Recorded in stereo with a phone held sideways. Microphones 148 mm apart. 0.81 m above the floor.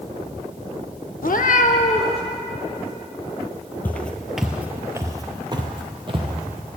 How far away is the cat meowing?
About 0.6 m.